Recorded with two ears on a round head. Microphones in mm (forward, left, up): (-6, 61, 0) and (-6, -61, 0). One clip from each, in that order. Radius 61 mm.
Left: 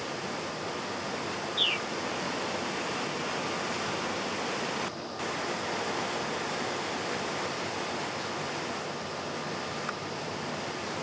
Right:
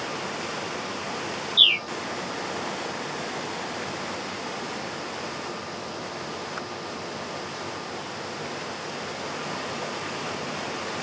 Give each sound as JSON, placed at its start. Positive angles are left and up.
{"t": 1.6, "sound": "a bird", "side_deg": -65}